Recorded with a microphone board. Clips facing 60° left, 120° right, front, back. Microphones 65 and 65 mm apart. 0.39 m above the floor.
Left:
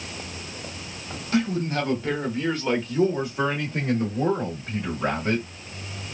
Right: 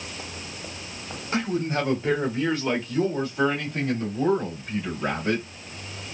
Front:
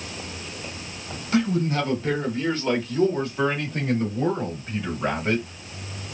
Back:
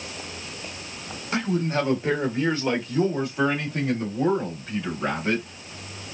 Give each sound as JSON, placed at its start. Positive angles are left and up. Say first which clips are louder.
{"t": 1.3, "sound": "a man speaking", "louder": "left 1 dB, front 2 dB", "azimuth_deg": -150, "distance_m": 1.5}